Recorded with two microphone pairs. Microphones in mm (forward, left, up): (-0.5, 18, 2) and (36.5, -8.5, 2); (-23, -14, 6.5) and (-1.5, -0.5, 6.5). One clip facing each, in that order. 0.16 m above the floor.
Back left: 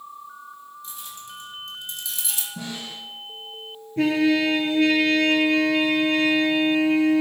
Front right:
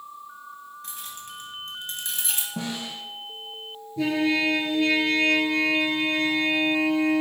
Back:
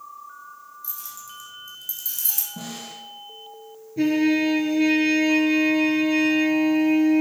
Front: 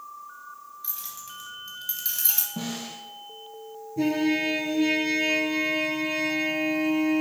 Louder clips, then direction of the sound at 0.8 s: Back left 1 dB, even; 15° right.